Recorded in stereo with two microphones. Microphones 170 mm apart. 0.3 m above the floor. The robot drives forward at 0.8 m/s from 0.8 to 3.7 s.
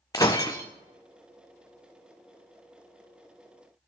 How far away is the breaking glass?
About 0.9 m.